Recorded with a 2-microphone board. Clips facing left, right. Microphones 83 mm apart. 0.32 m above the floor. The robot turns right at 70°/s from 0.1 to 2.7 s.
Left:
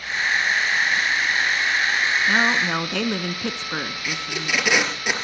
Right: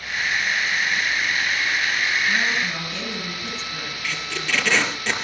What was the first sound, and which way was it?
A woman speaking, 60° left.